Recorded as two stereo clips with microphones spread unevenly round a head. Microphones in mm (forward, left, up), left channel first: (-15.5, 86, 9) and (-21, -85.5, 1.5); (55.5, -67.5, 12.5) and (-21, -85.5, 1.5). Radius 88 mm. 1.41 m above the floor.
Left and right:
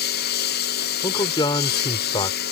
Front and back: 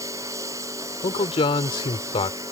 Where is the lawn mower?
120° left.